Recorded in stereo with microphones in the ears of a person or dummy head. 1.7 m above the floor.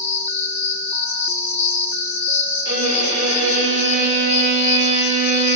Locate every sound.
0.0 s an insect: 10° left (ahead or behind), 2.5 m
2.6 s a violin: 65° right (ahead or behind), 7 m